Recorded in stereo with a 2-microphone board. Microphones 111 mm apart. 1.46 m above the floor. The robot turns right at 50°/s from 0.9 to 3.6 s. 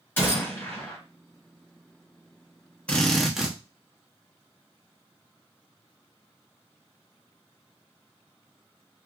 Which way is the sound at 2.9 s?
160° left.